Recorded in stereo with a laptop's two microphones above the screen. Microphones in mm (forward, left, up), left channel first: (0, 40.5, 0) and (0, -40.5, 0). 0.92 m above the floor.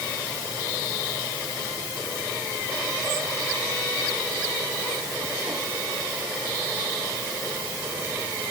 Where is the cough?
I don't hear a cough.